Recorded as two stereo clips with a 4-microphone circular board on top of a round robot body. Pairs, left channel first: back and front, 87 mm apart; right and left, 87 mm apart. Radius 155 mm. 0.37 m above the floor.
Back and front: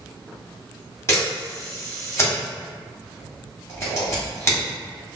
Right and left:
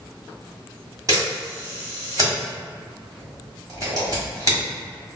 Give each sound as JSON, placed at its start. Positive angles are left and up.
{"t": 1.1, "sound": "a camera shutter", "azimuth_deg": 125, "distance_m": 2.0}